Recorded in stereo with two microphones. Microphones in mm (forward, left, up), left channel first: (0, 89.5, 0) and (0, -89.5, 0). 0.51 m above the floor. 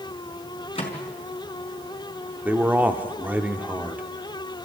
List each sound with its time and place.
0.8 s a microwave: 30° left (ahead or behind), 4.5 m
2.5 s a man speaking: 10° right (ahead or behind), 1.3 m